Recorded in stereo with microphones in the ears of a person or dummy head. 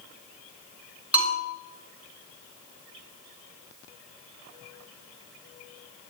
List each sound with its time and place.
1.1 s a bell: 10° right (ahead or behind), 7 m